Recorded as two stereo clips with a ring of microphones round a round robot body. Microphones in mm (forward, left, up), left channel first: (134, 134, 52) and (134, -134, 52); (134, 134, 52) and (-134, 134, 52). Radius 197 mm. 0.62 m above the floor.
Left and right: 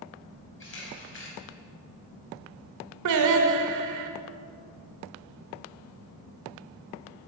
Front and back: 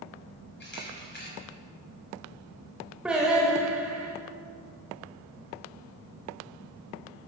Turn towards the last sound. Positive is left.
turn(degrees=-95)